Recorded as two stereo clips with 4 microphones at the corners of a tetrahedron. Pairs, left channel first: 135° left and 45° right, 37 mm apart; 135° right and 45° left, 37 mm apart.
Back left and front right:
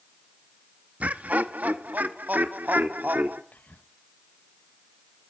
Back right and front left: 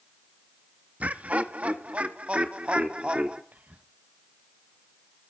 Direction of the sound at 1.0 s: Straight ahead.